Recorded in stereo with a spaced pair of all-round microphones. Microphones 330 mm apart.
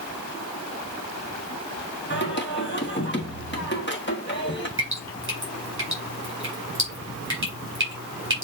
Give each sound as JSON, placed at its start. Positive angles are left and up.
{"t": 2.1, "sound": "singing", "side_deg": 35, "distance_m": 1.3}
{"t": 4.8, "sound": "dripping", "side_deg": -35, "distance_m": 3.5}